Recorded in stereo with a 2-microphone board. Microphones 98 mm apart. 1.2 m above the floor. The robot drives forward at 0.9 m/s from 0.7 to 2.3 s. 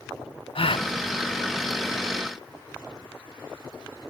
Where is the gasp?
70° left (ahead or behind), 0.6 m; by 0.9 s 80° left, 0.6 m.